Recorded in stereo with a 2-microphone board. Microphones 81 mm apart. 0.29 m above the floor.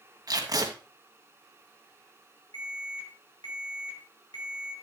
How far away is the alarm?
About 5 m.